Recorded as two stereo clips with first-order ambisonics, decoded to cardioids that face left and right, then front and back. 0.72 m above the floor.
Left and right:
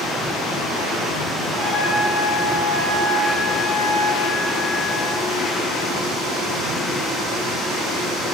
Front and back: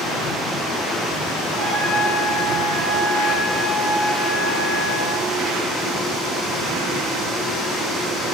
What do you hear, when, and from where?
1.6 s a trumpet: 145° left, 4 m